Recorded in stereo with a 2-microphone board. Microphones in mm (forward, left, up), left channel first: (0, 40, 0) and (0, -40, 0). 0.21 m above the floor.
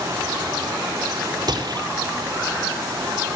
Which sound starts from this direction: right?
A gunshot, at 1.5 s.